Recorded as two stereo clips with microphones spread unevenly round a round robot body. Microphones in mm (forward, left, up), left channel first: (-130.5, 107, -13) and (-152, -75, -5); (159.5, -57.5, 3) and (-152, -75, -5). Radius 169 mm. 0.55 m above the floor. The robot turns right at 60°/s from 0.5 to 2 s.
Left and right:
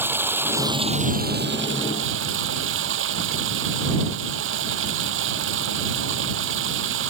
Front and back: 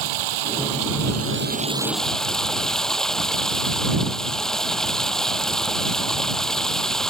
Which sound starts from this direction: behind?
Running water, at 0.0 s.